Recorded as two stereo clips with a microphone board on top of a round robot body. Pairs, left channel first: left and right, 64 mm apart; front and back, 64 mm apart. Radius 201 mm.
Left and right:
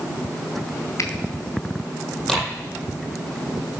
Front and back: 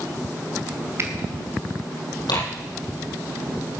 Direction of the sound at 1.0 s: 135° left.